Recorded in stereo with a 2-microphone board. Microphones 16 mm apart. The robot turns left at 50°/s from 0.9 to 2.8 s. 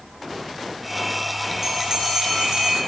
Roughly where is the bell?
Ahead right.